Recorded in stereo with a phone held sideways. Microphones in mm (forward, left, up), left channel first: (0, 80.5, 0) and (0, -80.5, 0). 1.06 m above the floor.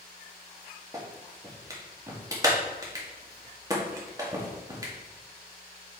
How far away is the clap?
About 1.9 m.